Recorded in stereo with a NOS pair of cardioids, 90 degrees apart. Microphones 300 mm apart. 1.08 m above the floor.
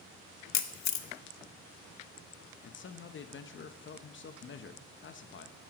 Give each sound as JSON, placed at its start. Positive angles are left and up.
{"t": 0.5, "sound": "a camera shutter", "azimuth_deg": 70, "distance_m": 0.8}
{"t": 2.6, "sound": "a man speaking", "azimuth_deg": 40, "distance_m": 0.9}